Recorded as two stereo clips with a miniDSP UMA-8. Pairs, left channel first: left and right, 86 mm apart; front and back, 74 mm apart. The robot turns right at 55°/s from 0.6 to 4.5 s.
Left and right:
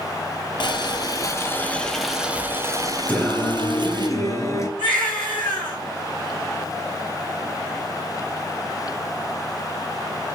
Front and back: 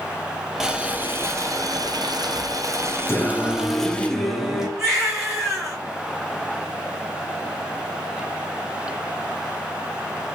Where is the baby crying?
95° left, 2.5 m.